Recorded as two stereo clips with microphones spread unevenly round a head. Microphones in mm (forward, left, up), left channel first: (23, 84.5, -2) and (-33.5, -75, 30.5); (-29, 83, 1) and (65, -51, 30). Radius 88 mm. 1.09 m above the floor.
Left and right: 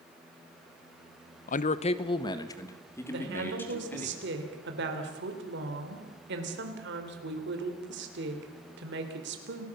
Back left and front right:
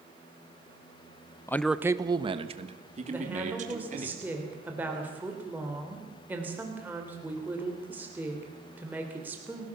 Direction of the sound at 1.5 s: 60° left.